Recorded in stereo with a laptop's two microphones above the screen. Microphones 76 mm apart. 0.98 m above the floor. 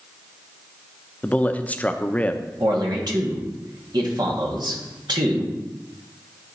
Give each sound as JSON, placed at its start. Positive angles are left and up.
{"t": 1.2, "sound": "a man speaking", "side_deg": 20, "distance_m": 0.6}
{"t": 2.6, "sound": "a man speaking", "side_deg": -65, "distance_m": 1.5}